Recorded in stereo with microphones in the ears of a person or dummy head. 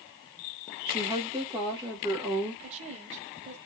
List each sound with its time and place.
0.9 s a woman speaking: 25° right (ahead or behind), 1.8 m
2.6 s a woman speaking: 40° right (ahead or behind), 1.2 m